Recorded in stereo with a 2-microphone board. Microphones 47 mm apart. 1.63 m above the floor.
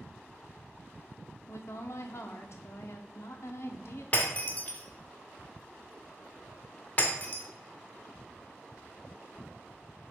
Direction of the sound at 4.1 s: 30° left (ahead or behind).